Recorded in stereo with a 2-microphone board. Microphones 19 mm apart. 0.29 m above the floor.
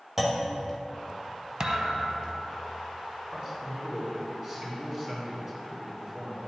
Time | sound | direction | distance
0.2 | a clunk | 15° right (ahead or behind) | 1.1 m
1.6 | a thud | 35° right (ahead or behind) | 0.7 m
3.3 | a man speaking | 30° right (ahead or behind) | 3 m